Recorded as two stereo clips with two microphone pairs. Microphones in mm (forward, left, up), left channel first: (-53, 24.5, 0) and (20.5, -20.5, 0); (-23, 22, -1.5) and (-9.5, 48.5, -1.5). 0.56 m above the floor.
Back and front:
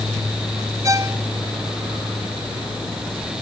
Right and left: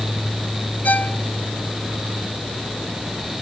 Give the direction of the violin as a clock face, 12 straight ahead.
3 o'clock.